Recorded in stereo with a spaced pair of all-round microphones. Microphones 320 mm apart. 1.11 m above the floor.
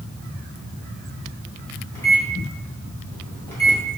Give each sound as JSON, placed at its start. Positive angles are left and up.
{"t": 1.9, "sound": "a microwave", "side_deg": 10, "distance_m": 1.7}